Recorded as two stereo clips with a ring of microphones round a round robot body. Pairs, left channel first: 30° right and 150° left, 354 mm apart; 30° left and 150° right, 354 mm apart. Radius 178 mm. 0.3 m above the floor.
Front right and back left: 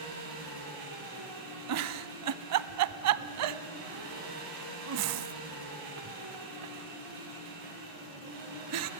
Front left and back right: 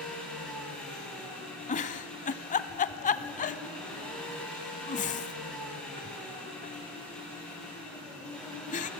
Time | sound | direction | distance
0.0 | an engine running | 115° left | 8 m
1.7 | a giggle | 100° left | 0.5 m